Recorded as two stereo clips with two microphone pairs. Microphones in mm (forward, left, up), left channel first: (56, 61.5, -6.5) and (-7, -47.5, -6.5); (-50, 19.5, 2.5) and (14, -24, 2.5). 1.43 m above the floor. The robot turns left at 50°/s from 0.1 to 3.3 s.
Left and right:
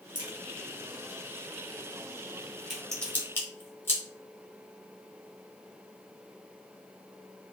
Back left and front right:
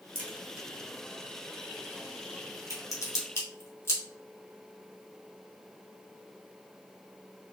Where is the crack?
80° right, 0.9 m; by 4.0 s 120° left, 0.9 m.